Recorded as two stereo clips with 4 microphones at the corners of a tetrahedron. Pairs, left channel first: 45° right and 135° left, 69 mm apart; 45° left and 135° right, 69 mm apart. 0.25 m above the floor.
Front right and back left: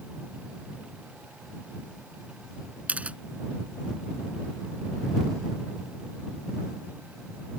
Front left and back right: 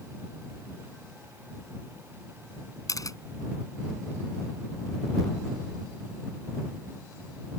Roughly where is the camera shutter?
Left.